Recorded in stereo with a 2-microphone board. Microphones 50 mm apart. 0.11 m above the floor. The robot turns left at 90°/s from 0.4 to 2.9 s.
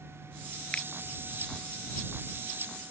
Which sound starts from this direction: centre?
A finger snap, at 0.7 s.